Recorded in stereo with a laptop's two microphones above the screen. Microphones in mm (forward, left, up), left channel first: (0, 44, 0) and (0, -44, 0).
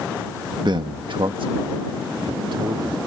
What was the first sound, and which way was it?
A man speaking, 55° right (ahead or behind).